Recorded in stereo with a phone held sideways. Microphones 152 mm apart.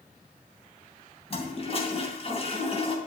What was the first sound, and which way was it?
A toilet flushing, 40° left (ahead or behind).